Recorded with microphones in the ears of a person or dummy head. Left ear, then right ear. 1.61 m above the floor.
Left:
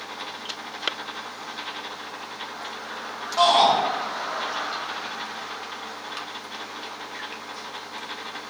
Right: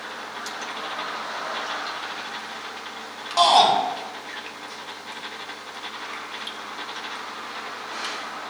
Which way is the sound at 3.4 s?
65° right (ahead or behind).